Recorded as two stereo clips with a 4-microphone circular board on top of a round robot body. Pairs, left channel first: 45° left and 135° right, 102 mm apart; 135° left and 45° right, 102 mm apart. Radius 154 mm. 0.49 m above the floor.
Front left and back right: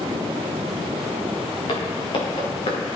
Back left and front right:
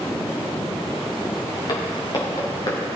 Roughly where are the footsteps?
Left.